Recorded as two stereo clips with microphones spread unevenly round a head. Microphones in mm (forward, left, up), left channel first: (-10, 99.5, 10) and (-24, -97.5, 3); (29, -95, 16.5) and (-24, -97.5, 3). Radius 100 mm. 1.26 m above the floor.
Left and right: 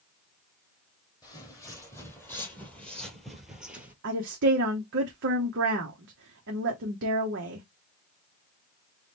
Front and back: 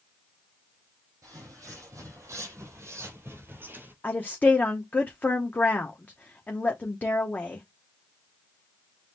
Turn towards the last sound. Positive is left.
turn(degrees=-55)